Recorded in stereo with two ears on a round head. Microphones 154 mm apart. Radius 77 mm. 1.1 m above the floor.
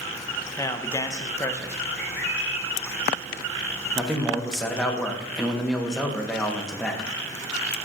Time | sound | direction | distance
0.6 | a man speaking | 15° left (ahead or behind) | 0.6 m
2.0 | a bird | 70° left (ahead or behind) | 2 m
4.0 | a man speaking | 5° left (ahead or behind) | 1.1 m